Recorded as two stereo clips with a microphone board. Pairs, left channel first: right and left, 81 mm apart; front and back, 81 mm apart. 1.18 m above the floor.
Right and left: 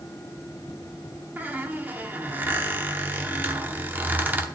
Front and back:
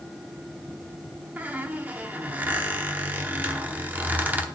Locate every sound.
1.4 s a squeak: 130° left, 0.8 m